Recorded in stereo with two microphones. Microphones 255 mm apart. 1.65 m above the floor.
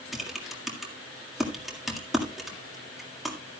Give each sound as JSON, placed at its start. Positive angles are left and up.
{"t": 0.1, "sound": "typing on a keyboard", "side_deg": 0, "distance_m": 1.9}